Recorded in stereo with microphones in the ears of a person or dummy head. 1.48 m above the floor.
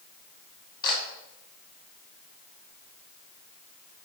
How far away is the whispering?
No whispering in this recording.